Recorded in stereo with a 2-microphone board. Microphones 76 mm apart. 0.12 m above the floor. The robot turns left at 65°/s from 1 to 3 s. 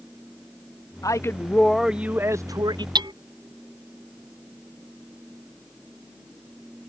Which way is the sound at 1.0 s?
50° left.